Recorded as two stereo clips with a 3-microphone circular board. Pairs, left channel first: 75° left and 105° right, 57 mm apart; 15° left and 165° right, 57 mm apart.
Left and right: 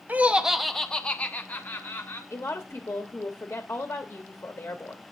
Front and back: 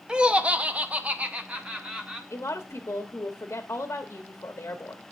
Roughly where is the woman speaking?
Ahead left.